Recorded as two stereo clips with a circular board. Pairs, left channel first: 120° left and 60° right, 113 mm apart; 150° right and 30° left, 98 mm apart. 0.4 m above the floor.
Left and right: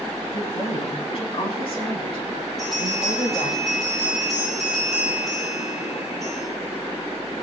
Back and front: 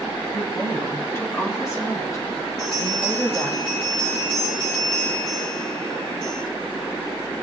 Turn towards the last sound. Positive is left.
turn(degrees=-150)